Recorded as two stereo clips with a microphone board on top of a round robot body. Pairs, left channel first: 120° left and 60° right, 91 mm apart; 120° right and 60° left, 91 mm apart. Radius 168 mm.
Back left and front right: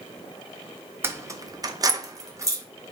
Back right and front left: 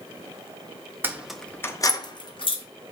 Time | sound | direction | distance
1.0 | keys jangling | straight ahead | 0.5 m